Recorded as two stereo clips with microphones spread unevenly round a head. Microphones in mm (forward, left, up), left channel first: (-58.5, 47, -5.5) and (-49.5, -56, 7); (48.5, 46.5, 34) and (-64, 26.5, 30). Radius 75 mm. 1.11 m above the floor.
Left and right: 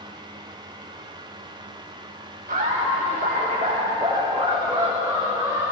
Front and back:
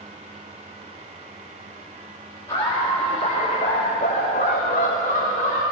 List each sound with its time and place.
2.5 s laughter: 60° right, 2.5 m; by 5.6 s straight ahead, 4 m